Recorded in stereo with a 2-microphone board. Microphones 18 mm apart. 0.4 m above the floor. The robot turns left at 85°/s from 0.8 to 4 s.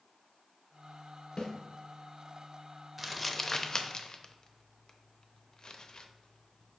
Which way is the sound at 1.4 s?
55° left (ahead or behind).